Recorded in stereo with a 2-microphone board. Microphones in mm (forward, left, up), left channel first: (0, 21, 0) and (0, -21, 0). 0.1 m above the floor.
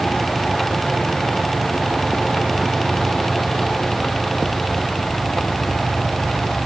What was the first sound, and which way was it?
Only background noise.